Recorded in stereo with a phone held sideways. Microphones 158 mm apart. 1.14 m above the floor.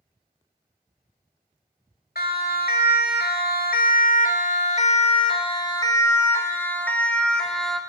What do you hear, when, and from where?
2.1 s a siren: 70° left (ahead or behind), 2.5 m; by 7.8 s centre (ahead or behind), 3.5 m